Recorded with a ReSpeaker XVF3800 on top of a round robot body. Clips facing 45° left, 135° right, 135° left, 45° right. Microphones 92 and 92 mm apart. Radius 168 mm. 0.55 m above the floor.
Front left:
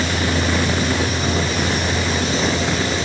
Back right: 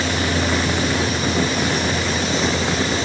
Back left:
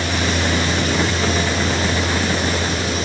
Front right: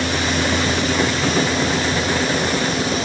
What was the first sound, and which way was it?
Only background noise.